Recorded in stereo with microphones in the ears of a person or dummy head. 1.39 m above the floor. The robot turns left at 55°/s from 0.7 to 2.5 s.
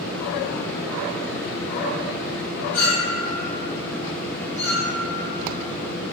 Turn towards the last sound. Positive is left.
turn(degrees=10)  # may be behind; listen again after turning